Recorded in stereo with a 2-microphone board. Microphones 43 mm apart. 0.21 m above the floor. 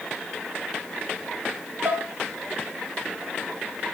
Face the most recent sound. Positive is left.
turn(degrees=-40)  # may be behind; listen again after turning